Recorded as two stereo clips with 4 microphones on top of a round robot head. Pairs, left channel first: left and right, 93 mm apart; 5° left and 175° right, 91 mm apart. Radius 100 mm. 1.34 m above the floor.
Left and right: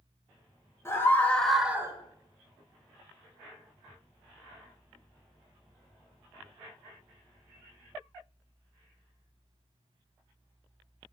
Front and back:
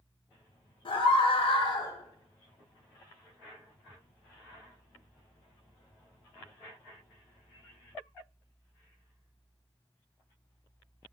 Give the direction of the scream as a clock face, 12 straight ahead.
11 o'clock.